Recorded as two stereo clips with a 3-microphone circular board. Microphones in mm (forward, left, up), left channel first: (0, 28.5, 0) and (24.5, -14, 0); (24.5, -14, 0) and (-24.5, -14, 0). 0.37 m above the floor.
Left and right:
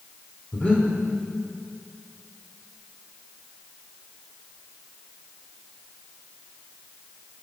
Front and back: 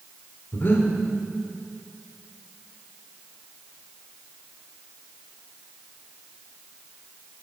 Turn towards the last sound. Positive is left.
turn(degrees=50)